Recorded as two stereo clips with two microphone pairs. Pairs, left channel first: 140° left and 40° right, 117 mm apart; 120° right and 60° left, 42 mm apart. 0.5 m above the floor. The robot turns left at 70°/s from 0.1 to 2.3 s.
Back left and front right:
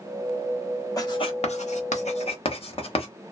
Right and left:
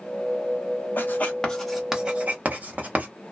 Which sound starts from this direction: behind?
Writing, at 1.0 s.